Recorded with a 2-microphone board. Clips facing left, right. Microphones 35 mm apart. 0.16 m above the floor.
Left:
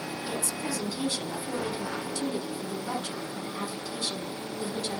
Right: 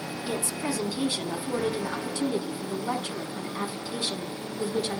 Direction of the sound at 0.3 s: 25° right (ahead or behind).